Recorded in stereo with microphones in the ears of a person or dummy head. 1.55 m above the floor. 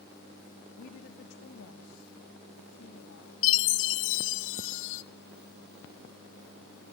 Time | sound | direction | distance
0.8 | a woman speaking | 55° left (ahead or behind) | 0.8 m
3.4 | a chime | 70° left (ahead or behind) | 0.9 m